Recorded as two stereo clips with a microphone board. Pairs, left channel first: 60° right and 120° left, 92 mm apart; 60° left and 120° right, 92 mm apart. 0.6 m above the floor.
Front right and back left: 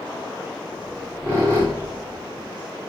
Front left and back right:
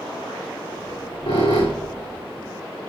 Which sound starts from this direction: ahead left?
A squeak, at 0.7 s.